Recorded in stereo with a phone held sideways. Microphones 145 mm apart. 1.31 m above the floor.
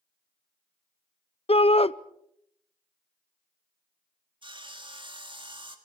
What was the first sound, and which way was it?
A shout, 45° left (ahead or behind).